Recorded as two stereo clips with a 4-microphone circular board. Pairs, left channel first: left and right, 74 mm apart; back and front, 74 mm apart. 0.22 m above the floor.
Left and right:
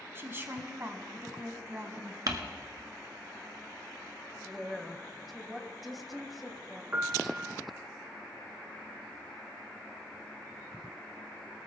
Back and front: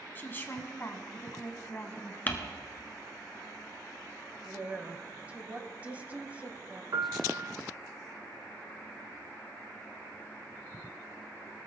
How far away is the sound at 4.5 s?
About 1.0 m.